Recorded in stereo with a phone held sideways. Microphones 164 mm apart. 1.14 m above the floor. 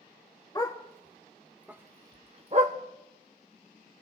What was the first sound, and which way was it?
A dog barking, 25° left (ahead or behind).